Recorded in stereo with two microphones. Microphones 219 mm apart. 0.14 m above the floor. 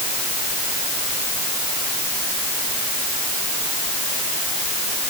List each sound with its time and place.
Only background noise.